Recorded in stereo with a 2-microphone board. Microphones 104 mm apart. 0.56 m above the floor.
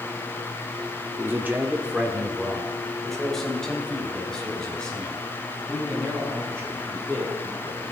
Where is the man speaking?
25° right (ahead or behind), 1.2 m; by 7.8 s 10° left (ahead or behind), 9.5 m.